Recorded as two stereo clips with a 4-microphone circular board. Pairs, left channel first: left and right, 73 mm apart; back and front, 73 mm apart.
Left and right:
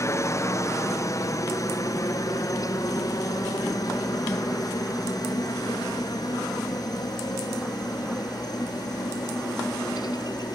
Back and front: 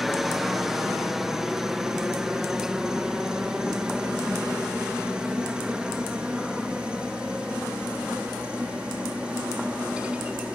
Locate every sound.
0.0 s a helicopter: 85° left; by 10.6 s 75° left